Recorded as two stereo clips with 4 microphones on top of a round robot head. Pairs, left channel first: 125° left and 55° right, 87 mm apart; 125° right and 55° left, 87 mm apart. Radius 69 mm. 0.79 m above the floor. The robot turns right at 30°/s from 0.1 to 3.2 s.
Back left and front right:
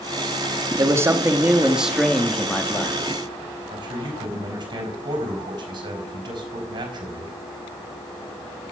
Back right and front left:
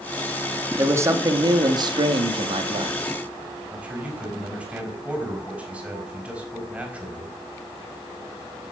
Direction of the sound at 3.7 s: 20° right.